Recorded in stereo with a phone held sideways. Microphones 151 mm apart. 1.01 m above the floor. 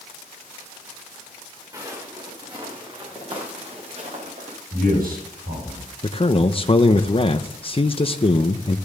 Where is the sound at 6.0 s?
40° left (ahead or behind), 0.7 m.